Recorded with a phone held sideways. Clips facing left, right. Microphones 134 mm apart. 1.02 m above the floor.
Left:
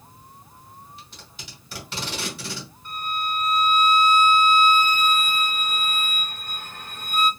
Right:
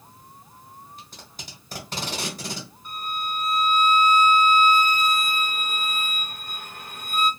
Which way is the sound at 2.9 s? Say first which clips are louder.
Left 3 dB; 10° right (ahead or behind).